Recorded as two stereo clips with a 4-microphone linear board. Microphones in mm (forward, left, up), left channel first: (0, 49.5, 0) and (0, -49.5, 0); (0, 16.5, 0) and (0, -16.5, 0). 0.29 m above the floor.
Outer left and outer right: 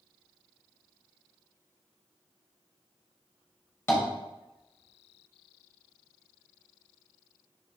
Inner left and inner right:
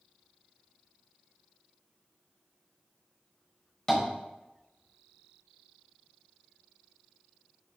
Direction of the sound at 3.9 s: 25° left (ahead or behind).